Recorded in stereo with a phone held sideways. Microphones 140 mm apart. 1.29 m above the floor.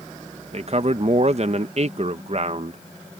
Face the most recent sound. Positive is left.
turn(degrees=-50)  # may be behind; listen again after turning